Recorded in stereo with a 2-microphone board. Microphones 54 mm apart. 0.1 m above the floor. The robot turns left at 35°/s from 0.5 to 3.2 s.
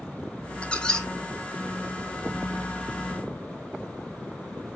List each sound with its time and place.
0.6 s a squeak: 25° left (ahead or behind), 0.9 m; by 1.1 s 5° left (ahead or behind), 0.9 m